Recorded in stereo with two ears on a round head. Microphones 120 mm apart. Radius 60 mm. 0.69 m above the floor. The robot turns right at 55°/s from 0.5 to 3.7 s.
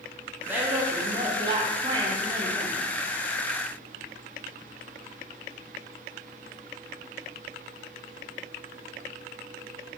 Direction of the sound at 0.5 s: 155° right.